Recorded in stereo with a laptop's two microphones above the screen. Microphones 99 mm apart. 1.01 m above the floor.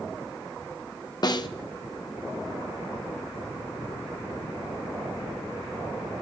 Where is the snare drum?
45° left (ahead or behind), 0.6 m.